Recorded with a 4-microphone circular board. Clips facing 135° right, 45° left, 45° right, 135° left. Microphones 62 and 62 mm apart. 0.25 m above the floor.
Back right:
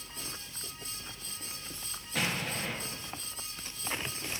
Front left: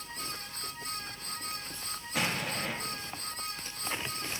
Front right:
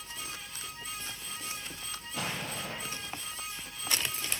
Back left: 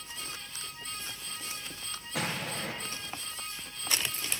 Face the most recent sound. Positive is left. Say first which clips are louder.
# front left 1 dB, back left 2 dB
turn(degrees=130)